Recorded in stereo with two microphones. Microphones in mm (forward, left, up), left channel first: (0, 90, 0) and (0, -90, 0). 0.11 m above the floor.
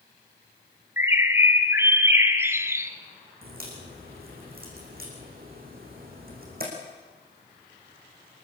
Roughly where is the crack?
Right.